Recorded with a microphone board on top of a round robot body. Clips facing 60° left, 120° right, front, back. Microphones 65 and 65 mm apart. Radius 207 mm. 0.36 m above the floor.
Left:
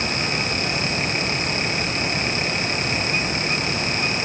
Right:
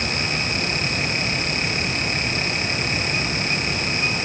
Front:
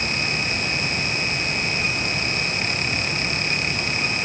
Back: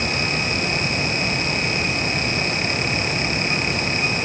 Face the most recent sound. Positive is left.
No sound to turn to.